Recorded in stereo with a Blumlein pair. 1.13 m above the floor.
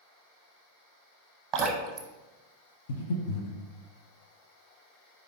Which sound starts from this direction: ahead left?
Breathing, at 2.9 s.